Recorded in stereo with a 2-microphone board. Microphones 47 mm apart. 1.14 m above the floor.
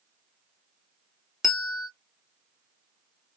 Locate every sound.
1.4 s a bell: 5° right (ahead or behind), 0.9 m